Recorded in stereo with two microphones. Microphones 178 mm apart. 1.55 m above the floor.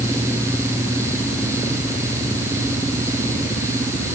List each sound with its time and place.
Only background noise.